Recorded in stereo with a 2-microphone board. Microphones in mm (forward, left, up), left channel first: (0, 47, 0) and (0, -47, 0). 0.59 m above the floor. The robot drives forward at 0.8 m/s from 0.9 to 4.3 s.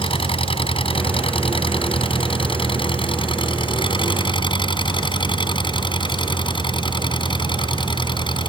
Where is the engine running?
80° left; by 8.5 s 60° left (ahead or behind).